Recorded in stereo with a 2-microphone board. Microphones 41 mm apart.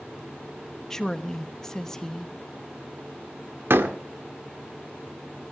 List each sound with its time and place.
0.9 s a woman speaking: 10° left (ahead or behind), 1.1 m
3.7 s a door slam: 75° right (ahead or behind), 1.6 m